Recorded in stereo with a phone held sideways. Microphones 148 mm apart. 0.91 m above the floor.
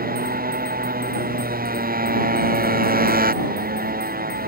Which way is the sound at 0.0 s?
85° right.